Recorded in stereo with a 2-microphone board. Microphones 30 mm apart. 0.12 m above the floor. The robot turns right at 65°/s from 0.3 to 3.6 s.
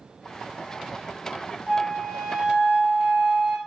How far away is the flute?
About 1.2 m.